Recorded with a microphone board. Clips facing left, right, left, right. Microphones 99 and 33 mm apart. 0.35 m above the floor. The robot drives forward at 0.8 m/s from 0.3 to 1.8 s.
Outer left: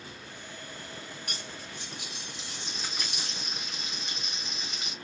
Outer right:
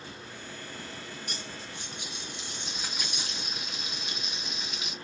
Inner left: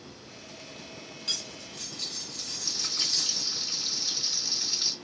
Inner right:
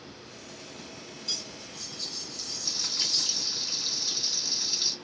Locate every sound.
1.3 s cutlery clinking: 60° left (ahead or behind), 1.0 m; by 3.5 s 50° left (ahead or behind), 1.2 m
2.6 s frying: 5° right (ahead or behind), 1.9 m